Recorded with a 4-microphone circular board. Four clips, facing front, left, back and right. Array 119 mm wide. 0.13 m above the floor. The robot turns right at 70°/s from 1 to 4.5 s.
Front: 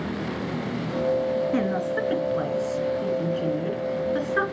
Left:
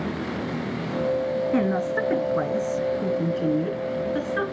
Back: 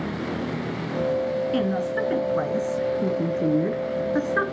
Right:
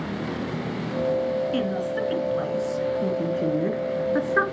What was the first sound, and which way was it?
A woman speaking, 60° left.